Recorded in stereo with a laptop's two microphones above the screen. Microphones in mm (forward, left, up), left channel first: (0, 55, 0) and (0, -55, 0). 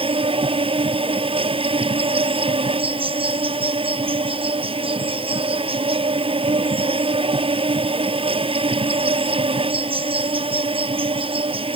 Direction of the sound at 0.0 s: 55° right (ahead or behind).